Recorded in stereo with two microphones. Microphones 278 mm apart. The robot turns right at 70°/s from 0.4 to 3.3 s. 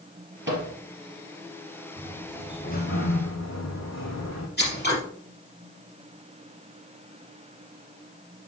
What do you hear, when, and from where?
0.5 s a microwave: 40° right (ahead or behind), 2.5 m; by 0.7 s 55° right (ahead or behind), 2.5 m
2.0 s a sliding door: 20° right, 2.5 m; by 4.5 s 70° left, 2.5 m
4.6 s scissors: 35° left (ahead or behind), 4 m